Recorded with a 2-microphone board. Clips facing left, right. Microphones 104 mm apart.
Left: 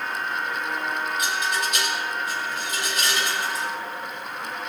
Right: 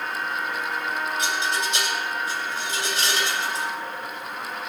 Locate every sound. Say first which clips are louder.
1.2 s a rattle: even; 30° right (ahead or behind), 7.5 m